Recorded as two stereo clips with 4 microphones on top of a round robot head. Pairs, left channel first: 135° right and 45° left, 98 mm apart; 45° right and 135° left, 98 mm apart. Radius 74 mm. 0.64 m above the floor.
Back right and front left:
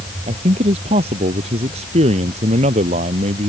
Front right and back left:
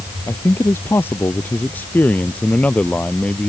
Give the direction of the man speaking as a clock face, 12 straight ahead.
11 o'clock.